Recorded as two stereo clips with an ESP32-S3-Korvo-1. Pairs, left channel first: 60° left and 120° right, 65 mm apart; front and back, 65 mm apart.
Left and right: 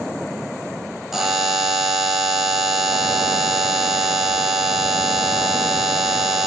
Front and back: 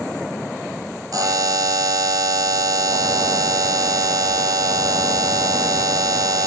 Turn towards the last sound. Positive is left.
turn(degrees=155)